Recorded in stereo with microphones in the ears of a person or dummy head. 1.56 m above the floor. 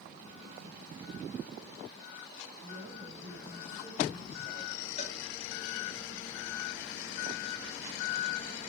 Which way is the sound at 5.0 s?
35° left (ahead or behind).